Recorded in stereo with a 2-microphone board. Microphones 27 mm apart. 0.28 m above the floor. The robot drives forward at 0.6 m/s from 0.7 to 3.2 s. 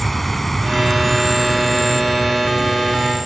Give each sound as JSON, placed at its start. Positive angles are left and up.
{"t": 0.0, "sound": "an insect", "side_deg": 10}